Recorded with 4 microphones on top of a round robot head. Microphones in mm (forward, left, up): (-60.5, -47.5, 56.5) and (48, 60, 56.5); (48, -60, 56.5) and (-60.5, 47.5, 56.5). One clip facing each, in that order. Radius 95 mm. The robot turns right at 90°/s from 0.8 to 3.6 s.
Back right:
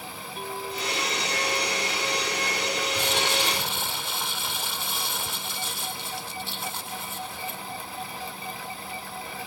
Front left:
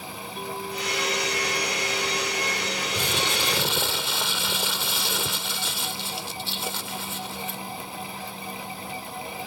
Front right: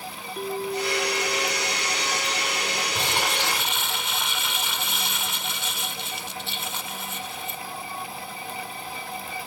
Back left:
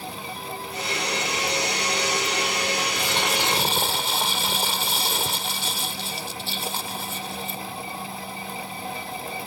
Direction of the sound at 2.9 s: 15° left.